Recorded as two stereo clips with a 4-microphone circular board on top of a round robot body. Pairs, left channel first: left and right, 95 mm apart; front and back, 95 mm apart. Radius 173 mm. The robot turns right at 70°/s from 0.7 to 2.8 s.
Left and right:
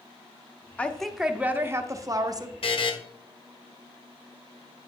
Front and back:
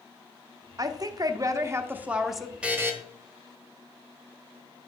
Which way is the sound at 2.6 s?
100° left.